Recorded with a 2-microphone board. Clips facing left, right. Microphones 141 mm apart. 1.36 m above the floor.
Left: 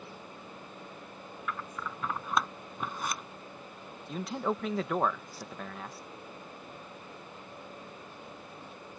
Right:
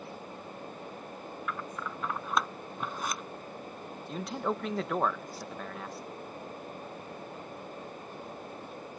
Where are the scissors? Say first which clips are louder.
Even; centre (ahead or behind).